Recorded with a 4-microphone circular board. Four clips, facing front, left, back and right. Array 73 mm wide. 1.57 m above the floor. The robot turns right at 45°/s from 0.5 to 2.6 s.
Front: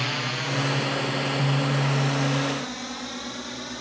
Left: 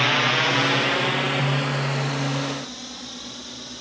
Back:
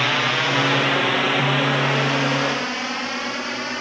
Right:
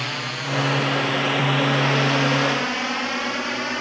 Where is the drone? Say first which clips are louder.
Left 8 dB, back 8 dB; 140° left; by 3.8 s 125° right.